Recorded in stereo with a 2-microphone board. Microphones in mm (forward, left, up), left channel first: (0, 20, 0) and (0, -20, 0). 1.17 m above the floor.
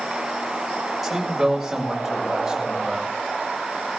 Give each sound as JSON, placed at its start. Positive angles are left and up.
{"t": 1.0, "sound": "a man speaking", "side_deg": -5, "distance_m": 5.5}